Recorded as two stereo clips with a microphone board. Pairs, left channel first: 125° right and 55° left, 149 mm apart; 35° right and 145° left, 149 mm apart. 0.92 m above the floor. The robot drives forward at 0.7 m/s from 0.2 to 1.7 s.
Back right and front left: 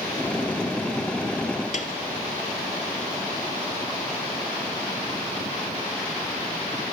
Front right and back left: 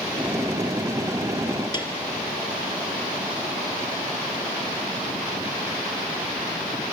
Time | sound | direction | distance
1.7 | a piano | 95° right | 2.5 m